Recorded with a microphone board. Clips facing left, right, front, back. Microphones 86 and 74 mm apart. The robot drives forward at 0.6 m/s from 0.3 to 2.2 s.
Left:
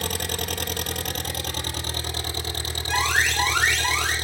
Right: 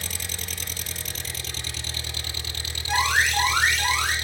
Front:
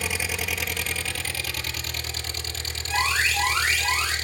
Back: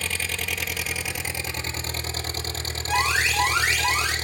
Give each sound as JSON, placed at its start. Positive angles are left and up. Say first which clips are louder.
{"t": 0.0, "sound": "an engine running", "louder": "left 9 dB, front 1 dB", "azimuth_deg": 80, "distance_m": 1.1}
{"t": 2.9, "sound": "an alarm", "louder": "right 1 dB, back 1 dB", "azimuth_deg": -175, "distance_m": 10.0}